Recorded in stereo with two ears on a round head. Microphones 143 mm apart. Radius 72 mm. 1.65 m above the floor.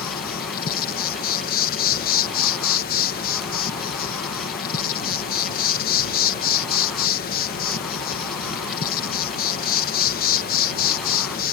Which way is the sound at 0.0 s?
60° left (ahead or behind).